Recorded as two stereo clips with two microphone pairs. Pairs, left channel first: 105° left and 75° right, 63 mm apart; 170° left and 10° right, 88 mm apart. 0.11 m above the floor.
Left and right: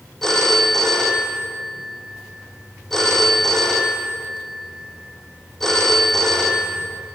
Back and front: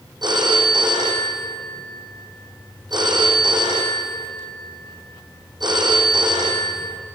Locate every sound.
0.2 s a phone ringing: 25° left, 3.5 m